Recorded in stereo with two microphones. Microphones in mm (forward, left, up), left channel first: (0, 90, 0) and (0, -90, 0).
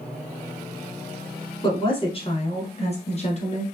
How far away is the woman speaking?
About 1.1 m.